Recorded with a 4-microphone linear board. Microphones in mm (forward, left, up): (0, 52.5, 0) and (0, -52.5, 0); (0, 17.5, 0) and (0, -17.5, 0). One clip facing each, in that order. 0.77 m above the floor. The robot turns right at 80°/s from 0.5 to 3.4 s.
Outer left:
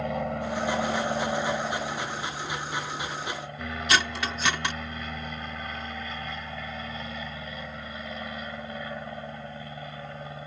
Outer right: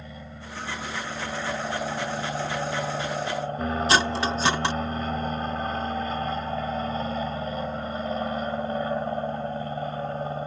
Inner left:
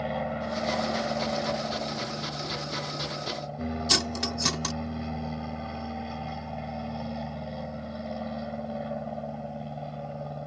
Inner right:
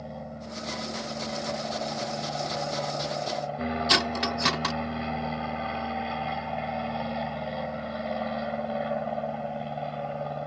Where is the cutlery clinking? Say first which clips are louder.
Outer right 2 dB, inner right 4 dB; 30° right (ahead or behind).